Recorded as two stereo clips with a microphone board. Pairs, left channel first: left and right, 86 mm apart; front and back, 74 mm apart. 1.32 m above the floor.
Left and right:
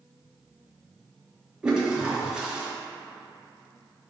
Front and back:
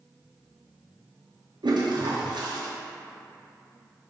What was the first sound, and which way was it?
A toilet flushing, 170° right.